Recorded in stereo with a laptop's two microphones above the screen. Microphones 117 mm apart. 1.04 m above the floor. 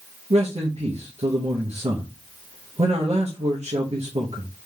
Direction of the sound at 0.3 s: 70° right (ahead or behind).